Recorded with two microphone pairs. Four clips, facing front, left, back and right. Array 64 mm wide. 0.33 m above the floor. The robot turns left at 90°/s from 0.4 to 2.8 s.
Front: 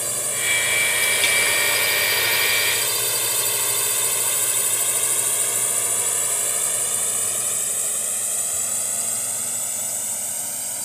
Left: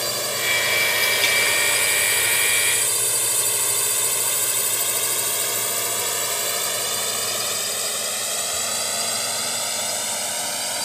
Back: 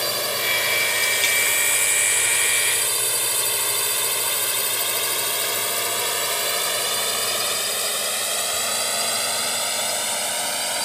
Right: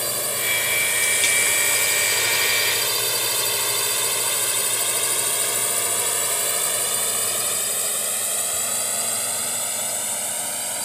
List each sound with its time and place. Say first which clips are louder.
0.0 s a drone: left 2 dB, back 4 dB; 170° left